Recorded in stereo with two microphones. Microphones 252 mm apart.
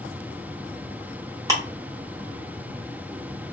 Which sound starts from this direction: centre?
Ticking, at 1.5 s.